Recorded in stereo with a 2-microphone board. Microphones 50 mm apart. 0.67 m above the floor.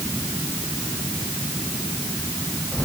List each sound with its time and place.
Only background noise.